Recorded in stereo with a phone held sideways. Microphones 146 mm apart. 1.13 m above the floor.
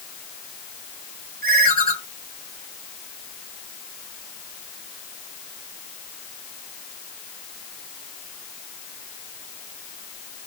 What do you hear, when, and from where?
1.4 s a ringtone: 90° right, 3.5 m